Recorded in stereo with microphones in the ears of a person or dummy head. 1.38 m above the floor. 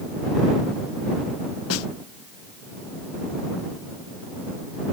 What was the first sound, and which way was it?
A snare drum, 80° left.